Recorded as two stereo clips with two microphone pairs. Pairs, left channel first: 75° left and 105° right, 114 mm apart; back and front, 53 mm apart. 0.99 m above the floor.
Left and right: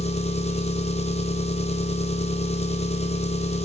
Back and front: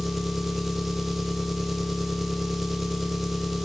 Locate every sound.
0.0 s an engine running: 85° left, 0.9 m